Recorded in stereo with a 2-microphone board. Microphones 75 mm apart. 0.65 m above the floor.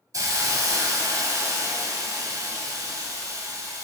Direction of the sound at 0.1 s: 50° right (ahead or behind).